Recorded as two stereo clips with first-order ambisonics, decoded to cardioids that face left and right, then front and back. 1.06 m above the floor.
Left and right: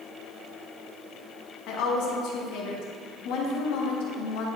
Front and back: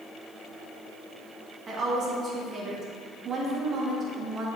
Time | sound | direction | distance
1.7 | a woman speaking | 120° left | 1.5 m